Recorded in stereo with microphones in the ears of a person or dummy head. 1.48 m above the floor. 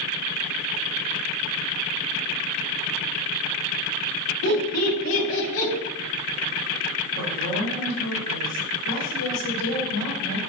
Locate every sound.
4.4 s laughter: 85° left, 1.3 m; by 5.7 s 45° left (ahead or behind), 0.9 m
7.2 s a woman speaking: 85° left, 1.5 m